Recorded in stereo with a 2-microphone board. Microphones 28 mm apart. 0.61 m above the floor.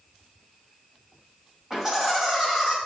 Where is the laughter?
15° right (ahead or behind), 2.5 m.